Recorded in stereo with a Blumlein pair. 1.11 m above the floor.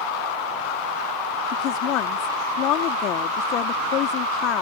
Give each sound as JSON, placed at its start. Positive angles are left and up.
{"t": 1.5, "sound": "a woman speaking", "azimuth_deg": 35}